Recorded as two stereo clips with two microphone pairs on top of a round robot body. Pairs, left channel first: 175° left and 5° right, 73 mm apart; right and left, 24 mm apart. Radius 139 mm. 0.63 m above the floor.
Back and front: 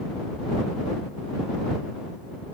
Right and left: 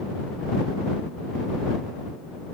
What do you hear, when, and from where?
Only background noise.